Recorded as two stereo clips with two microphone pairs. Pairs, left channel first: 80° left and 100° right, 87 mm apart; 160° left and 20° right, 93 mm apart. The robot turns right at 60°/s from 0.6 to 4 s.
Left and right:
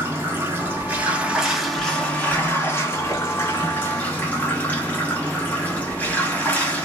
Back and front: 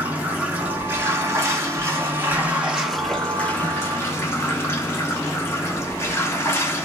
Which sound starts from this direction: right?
Running water, at 0.0 s.